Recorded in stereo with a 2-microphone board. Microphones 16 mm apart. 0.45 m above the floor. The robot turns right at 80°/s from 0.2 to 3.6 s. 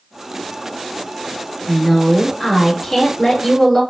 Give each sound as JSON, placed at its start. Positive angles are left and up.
{"t": 1.7, "sound": "a woman speaking", "azimuth_deg": -40, "distance_m": 1.5}